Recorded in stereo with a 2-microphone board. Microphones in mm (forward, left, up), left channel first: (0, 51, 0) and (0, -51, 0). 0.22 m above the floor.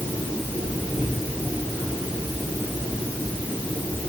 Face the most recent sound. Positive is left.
No sound to turn to.